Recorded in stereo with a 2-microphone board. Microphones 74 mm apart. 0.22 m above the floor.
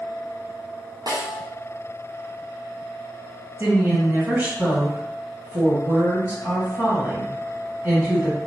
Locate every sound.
1.1 s a snare drum: 70° right (ahead or behind), 1.3 m
3.6 s a woman speaking: 25° right (ahead or behind), 1.8 m